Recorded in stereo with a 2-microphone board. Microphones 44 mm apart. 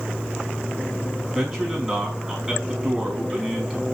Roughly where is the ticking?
No ticking in this recording.